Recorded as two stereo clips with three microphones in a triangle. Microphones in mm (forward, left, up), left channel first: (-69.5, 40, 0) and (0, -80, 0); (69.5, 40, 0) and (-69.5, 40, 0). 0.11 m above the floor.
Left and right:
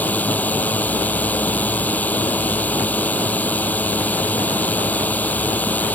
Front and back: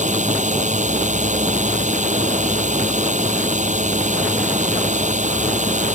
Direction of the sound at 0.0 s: 160° right.